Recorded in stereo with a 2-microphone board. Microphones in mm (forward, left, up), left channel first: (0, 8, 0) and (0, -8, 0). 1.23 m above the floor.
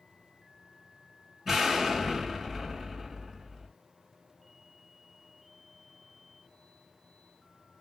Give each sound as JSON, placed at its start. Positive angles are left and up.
{"t": 1.4, "sound": "an explosion", "side_deg": -20, "distance_m": 6.0}